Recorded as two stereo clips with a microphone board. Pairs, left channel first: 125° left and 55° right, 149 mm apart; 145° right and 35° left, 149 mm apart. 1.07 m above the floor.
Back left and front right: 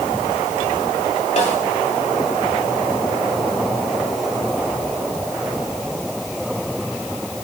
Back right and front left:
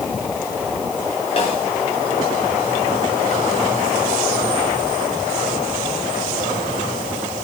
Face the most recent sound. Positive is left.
turn(degrees=165)